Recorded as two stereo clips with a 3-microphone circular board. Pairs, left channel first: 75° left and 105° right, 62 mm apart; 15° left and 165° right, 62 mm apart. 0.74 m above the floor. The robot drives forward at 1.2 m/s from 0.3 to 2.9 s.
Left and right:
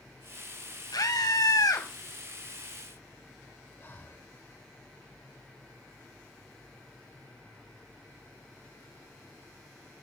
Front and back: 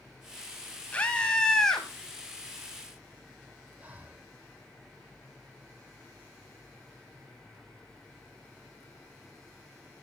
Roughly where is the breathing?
Behind left.